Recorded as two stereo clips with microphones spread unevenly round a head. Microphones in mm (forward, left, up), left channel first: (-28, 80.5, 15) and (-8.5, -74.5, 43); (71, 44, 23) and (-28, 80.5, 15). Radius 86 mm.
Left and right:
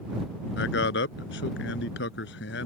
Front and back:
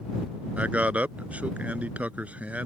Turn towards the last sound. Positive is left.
turn(degrees=85)